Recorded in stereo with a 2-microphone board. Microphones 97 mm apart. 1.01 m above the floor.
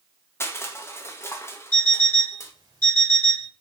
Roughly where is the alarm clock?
Right.